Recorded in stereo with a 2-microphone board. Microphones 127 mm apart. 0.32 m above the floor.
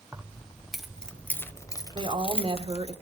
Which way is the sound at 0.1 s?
10° right (ahead or behind).